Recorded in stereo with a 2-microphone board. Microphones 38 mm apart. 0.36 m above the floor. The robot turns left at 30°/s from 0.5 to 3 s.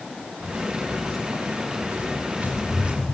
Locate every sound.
0.4 s footsteps: 45° right (ahead or behind), 3 m; by 3.0 s 20° right (ahead or behind), 4 m